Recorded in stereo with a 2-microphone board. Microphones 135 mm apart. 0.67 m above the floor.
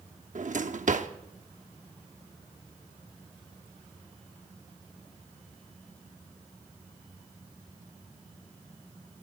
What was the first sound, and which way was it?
A drawer, 70° right (ahead or behind).